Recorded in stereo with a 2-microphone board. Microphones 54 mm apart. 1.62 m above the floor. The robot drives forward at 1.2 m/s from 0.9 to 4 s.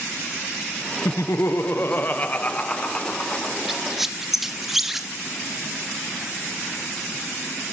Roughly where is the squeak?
Centre.